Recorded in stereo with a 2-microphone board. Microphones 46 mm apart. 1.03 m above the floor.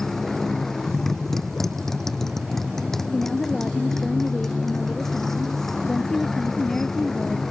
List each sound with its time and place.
0.0 s a motorcycle: 10° left (ahead or behind)
3.1 s a woman speaking: 10° left (ahead or behind)